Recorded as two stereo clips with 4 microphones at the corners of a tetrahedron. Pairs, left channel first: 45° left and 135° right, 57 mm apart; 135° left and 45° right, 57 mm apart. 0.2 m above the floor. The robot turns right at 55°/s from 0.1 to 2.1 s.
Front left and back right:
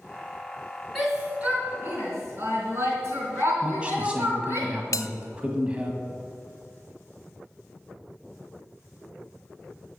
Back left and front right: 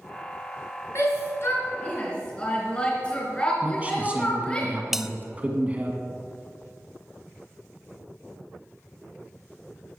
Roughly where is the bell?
Ahead left.